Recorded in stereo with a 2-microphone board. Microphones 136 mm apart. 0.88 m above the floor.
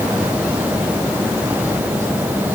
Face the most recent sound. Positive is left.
No sound to turn to.